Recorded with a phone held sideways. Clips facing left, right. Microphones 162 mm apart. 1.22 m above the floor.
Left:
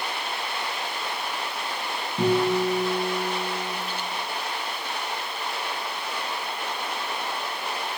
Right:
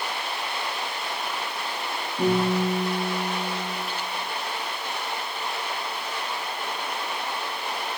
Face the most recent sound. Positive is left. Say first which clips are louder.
# left 1 dB
turn(degrees=80)